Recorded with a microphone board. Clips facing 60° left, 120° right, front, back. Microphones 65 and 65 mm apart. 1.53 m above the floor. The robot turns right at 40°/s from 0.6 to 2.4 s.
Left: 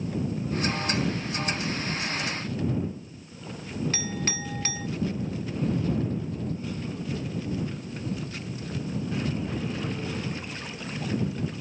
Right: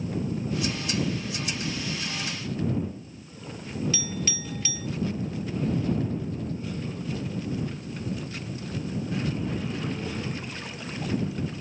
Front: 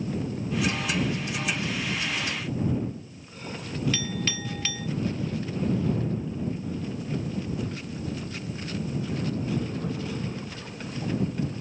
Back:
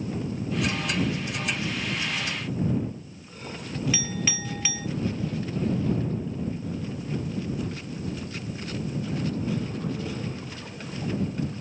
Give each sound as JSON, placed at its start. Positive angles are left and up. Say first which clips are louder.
{"t": 3.9, "sound": "a clink", "louder": "left 1 dB, even", "azimuth_deg": 100}